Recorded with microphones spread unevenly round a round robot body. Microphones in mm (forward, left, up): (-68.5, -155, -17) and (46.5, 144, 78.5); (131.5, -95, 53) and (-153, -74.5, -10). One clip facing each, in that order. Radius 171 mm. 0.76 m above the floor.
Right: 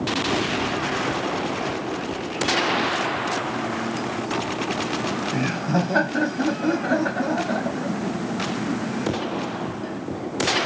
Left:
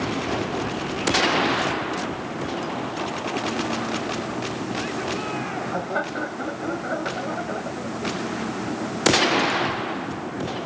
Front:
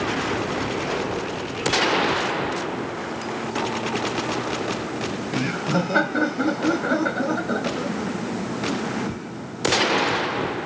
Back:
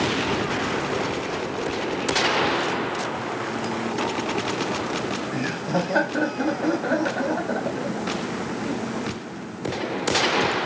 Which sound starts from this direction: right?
Laughter, at 5.0 s.